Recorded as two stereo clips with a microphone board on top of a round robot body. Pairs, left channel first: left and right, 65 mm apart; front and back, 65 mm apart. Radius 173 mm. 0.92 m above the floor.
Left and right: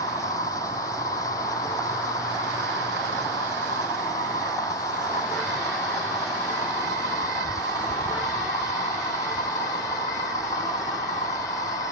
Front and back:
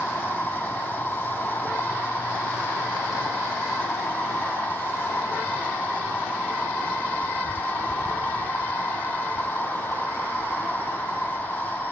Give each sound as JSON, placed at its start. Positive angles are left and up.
{"t": 0.0, "sound": "an insect", "azimuth_deg": 70}